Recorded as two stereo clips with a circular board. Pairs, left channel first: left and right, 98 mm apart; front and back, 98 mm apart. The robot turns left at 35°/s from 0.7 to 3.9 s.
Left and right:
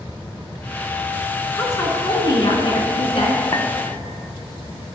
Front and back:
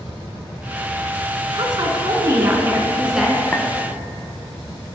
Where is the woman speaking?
155° left, 2.5 m; by 3.4 s 85° left, 2.5 m.